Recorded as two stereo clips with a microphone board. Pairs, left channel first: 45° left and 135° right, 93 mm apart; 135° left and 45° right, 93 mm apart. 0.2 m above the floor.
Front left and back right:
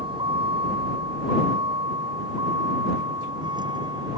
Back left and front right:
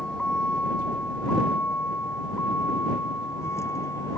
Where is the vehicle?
145° right; by 4.2 s 170° right.